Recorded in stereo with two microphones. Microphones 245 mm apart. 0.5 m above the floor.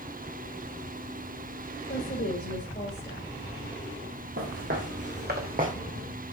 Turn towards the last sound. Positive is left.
turn(degrees=-35)  # may be behind; listen again after turning